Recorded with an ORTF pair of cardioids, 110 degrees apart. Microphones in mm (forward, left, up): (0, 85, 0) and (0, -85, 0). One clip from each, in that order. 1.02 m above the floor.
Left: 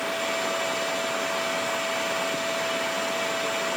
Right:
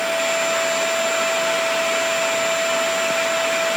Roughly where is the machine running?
Ahead right.